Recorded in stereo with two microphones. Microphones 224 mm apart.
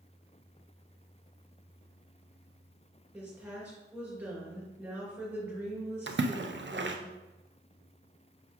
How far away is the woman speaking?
About 3 m.